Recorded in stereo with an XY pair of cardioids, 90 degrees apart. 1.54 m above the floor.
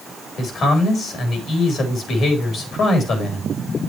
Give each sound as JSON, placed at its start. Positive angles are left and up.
{"t": 0.4, "sound": "a man speaking", "azimuth_deg": 70, "distance_m": 3.5}